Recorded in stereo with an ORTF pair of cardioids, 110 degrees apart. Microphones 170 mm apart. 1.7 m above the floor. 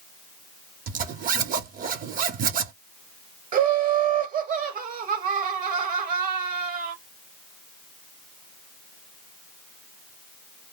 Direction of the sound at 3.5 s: 50° right.